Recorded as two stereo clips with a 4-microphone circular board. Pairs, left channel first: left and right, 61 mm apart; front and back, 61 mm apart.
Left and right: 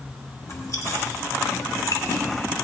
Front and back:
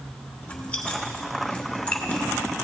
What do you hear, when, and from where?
0.4 s chewing: 65° left, 1.2 m